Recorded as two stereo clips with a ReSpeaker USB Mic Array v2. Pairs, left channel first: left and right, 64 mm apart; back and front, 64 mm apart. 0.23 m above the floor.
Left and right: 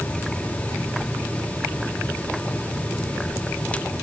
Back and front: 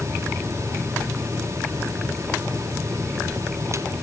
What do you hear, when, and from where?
Only background noise.